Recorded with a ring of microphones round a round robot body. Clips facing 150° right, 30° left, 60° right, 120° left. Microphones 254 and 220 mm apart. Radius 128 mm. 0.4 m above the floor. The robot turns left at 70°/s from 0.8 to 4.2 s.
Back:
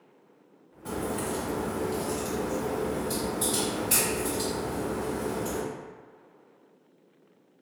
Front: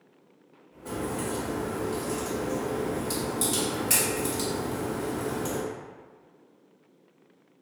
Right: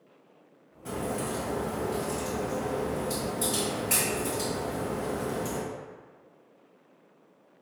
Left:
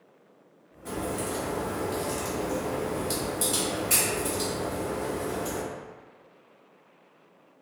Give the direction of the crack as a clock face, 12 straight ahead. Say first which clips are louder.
Even, left 1 dB; 4 o'clock.